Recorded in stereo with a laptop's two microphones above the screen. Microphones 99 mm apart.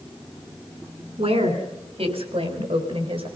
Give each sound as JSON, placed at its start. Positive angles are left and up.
{"t": 1.2, "sound": "a woman speaking", "side_deg": -85, "distance_m": 3.5}